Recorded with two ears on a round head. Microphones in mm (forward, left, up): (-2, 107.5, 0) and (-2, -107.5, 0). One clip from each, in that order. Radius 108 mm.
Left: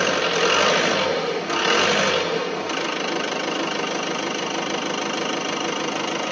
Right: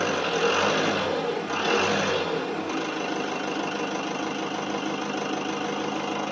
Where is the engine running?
55° left (ahead or behind), 1.1 m.